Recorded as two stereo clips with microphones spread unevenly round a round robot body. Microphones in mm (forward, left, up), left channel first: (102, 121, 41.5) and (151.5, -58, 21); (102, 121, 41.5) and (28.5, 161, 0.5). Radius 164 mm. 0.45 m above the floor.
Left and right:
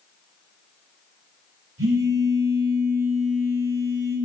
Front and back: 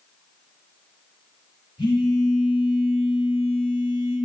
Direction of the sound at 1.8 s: 100° right.